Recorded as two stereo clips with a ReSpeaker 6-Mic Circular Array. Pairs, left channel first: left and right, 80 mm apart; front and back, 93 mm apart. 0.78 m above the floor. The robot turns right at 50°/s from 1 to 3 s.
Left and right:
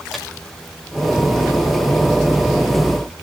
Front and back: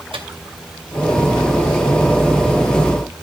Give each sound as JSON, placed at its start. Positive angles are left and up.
{"t": 0.1, "sound": "a microwave", "azimuth_deg": 180, "distance_m": 2.0}